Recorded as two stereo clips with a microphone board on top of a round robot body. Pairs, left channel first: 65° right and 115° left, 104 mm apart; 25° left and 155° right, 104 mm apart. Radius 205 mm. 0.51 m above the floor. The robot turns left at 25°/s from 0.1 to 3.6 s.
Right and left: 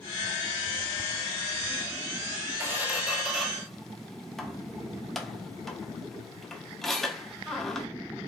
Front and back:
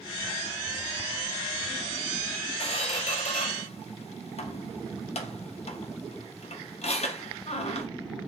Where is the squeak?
45° left, 0.6 m; by 7.9 s 20° left, 0.6 m.